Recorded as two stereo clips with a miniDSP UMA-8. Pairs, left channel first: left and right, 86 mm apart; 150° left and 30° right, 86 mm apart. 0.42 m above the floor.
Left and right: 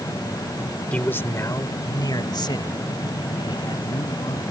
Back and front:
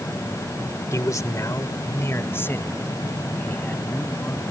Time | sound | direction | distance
0.9 | a man speaking | 155° left | ?